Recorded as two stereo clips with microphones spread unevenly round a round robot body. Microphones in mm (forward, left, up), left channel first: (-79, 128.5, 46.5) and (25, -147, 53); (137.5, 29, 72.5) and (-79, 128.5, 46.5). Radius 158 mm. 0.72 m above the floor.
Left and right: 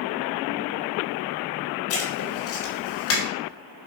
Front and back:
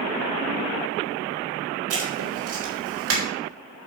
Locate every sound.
1.9 s writing: 150° left, 4 m